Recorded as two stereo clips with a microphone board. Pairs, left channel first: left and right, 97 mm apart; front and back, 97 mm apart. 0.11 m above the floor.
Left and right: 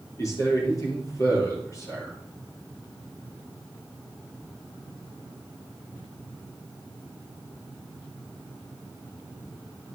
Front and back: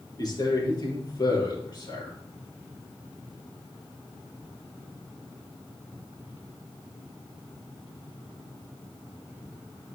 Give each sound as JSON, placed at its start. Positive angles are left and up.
{"t": 0.2, "sound": "a man speaking", "azimuth_deg": 40, "distance_m": 3.5}